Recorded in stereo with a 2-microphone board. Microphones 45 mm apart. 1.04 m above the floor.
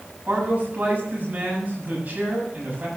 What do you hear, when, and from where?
0.3 s a man speaking: 35° right (ahead or behind), 7 m